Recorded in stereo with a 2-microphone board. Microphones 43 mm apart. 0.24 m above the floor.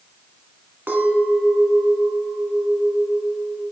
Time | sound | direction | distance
0.9 | a clink | 50° right (ahead or behind) | 1.2 m